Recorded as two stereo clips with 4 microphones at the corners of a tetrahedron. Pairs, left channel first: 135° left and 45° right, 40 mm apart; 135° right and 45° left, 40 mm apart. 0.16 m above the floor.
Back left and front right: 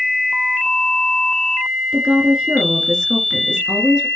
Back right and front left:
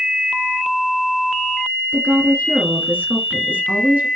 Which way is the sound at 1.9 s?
20° left.